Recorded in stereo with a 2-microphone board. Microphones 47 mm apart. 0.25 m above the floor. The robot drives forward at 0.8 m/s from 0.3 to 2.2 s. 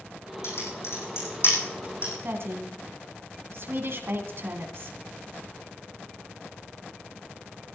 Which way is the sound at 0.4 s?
65° left (ahead or behind).